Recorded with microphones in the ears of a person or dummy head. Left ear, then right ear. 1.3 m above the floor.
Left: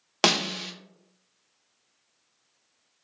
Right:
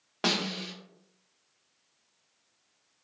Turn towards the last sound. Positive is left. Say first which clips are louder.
# left 6 dB
turn(degrees=80)